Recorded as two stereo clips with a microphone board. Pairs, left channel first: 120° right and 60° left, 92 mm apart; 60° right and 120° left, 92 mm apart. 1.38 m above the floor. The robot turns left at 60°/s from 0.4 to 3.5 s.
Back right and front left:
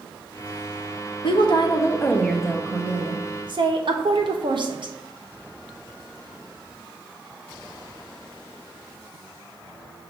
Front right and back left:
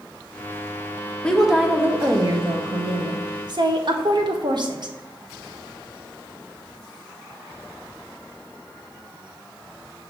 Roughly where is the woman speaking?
Behind right.